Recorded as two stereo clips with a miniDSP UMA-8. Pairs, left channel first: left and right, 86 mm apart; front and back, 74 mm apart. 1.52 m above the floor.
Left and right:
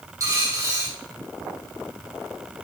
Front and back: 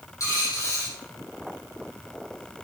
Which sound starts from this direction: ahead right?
A dropped coin, at 0.2 s.